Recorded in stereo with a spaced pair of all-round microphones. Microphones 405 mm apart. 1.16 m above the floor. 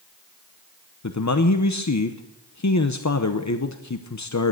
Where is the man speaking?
45° left (ahead or behind), 0.8 m.